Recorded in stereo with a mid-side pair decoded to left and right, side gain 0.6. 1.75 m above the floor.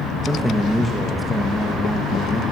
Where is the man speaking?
Straight ahead, 3 m.